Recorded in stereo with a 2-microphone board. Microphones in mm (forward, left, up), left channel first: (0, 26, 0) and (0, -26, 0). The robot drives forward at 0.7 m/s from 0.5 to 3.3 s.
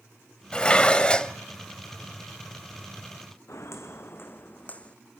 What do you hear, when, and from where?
0.5 s dishes clattering: 20° left (ahead or behind), 0.7 m
3.5 s footsteps: 70° left (ahead or behind), 1.3 m; by 5.0 s 20° left (ahead or behind), 1.0 m